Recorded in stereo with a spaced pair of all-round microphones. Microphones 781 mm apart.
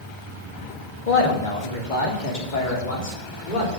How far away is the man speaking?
About 2 m.